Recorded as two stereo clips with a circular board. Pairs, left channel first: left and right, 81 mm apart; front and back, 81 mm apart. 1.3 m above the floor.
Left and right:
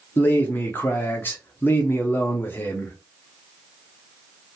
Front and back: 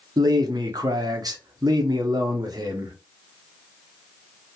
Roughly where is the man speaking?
Behind left.